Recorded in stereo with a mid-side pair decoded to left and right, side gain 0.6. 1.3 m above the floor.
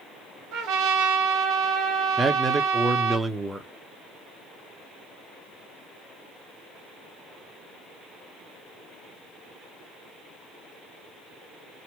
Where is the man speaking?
15° right, 0.7 m.